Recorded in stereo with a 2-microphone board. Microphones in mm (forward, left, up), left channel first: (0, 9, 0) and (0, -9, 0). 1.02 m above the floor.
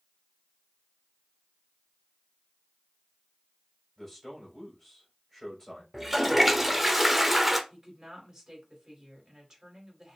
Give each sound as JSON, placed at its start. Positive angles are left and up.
{"t": 4.0, "sound": "a man speaking", "side_deg": 10, "distance_m": 3.5}
{"t": 5.9, "sound": "a toilet flushing", "side_deg": -10, "distance_m": 0.7}
{"t": 7.7, "sound": "a woman speaking", "side_deg": -30, "distance_m": 2.5}